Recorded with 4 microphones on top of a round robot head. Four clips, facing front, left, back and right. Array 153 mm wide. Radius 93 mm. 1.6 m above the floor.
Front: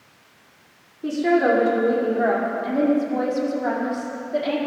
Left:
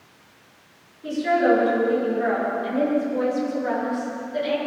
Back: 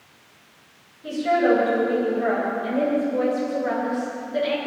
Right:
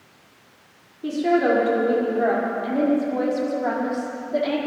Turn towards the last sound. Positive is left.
turn(degrees=-55)